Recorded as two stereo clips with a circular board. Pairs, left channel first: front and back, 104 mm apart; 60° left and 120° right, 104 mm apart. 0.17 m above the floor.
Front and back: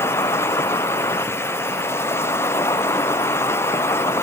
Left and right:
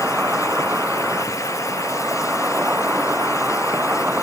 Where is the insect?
50° right.